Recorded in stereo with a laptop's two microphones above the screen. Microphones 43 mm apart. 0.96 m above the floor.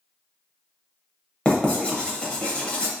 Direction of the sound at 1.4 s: 25° left (ahead or behind).